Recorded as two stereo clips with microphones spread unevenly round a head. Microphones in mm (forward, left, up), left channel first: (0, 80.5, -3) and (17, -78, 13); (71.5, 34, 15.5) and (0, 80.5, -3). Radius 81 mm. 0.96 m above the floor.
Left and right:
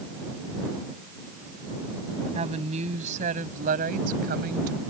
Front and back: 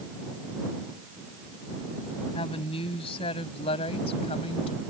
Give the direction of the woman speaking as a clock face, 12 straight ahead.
1 o'clock.